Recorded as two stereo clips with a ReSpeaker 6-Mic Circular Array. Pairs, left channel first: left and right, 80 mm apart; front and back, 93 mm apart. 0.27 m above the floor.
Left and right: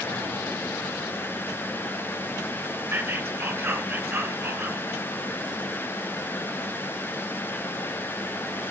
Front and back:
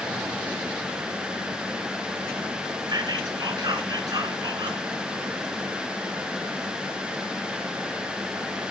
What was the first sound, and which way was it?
Whispering, 140° right.